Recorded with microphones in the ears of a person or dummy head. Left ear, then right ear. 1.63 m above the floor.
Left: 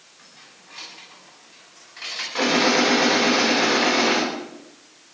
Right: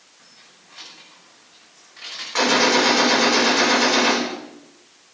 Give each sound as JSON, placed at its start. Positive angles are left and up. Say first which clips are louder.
{"t": 0.2, "sound": "keys jangling", "louder": "left 2 dB", "side_deg": 10, "distance_m": 8.0}
{"t": 2.4, "sound": "a gunshot", "louder": "right 2 dB", "side_deg": -45, "distance_m": 4.5}